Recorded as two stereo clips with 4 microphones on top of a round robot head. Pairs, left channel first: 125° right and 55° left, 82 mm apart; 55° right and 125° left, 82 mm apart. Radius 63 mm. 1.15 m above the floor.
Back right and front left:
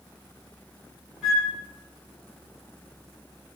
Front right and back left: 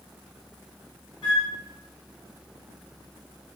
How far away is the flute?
About 1.0 m.